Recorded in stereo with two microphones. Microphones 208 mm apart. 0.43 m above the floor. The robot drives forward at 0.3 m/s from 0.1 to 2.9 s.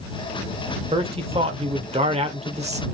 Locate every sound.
0.9 s a man speaking: 25° right (ahead or behind), 1.5 m; by 2.8 s 30° right (ahead or behind), 1.3 m